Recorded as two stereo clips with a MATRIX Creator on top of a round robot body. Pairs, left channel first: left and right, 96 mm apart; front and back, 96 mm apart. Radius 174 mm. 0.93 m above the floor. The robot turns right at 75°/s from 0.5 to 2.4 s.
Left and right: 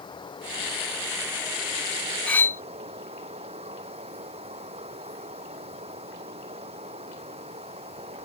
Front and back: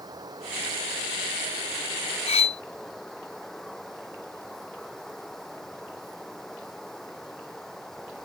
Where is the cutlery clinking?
10° left; by 2.6 s 20° left.